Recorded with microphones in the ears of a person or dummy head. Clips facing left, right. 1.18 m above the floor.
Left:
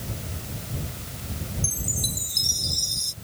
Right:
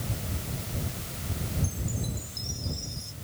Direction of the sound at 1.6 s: 85° left.